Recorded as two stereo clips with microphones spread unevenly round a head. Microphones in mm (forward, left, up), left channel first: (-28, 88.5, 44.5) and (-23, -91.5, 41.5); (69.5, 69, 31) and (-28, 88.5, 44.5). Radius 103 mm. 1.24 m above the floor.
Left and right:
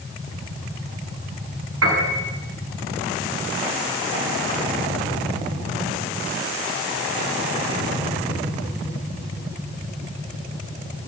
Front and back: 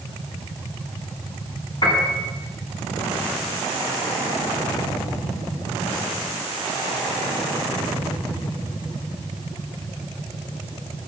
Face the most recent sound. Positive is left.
turn(degrees=-80)